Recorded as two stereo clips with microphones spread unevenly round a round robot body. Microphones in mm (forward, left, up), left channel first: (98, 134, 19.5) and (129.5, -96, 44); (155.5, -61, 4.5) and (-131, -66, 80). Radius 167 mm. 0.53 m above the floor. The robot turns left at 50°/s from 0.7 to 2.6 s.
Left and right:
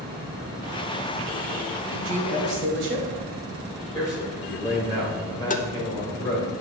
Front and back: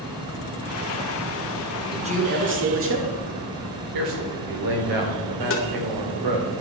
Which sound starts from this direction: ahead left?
Tapping, at 5.5 s.